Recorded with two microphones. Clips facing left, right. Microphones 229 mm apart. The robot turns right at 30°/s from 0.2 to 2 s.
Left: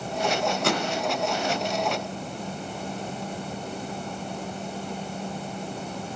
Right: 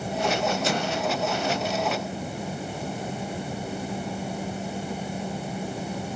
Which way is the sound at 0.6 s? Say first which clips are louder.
Left 1 dB; 70° left (ahead or behind).